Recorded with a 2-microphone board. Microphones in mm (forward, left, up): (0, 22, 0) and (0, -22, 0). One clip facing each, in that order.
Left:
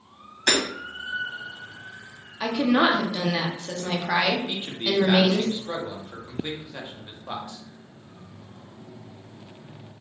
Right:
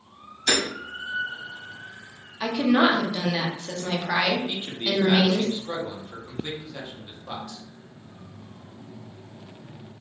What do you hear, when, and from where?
0.5 s hammering: 65° left (ahead or behind), 1.9 m
2.4 s a woman speaking: 10° left (ahead or behind), 0.8 m
4.5 s a man speaking: 15° left (ahead or behind), 0.8 m